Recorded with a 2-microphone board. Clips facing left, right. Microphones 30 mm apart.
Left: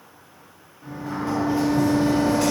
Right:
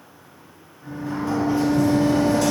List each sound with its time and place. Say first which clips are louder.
0.8 s a sliding door: right 1 dB; 65° left (ahead or behind), 1.8 m